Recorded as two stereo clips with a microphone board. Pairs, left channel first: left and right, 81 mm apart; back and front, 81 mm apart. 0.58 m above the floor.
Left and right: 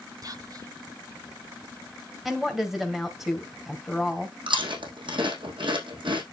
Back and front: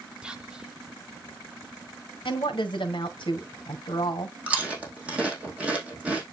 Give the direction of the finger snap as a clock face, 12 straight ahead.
I don't hear a finger snap.